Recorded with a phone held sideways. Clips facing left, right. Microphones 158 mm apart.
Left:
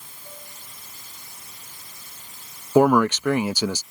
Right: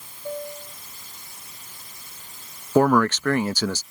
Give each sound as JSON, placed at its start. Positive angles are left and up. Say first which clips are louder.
{"t": 0.2, "sound": "a piano", "louder": "right 16 dB", "side_deg": -70}
{"t": 2.8, "sound": "a man speaking", "louder": "left 1 dB", "side_deg": 10}